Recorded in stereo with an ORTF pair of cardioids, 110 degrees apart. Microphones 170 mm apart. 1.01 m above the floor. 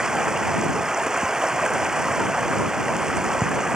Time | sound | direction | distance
0.0 | running water | 5° right | ?